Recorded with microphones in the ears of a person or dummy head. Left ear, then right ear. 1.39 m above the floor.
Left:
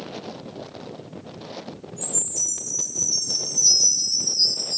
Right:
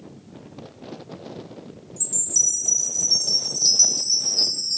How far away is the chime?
About 1.3 m.